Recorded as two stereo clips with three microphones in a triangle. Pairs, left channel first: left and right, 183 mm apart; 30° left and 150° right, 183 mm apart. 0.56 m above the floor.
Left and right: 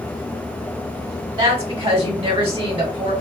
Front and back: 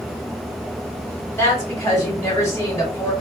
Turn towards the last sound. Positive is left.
turn(degrees=-40)